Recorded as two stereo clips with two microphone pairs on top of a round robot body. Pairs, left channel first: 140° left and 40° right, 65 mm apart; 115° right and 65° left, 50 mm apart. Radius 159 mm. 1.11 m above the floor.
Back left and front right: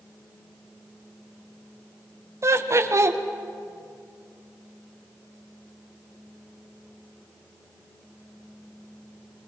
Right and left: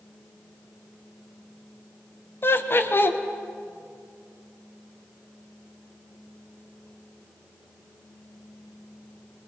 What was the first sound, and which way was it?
Laughter, 80° right.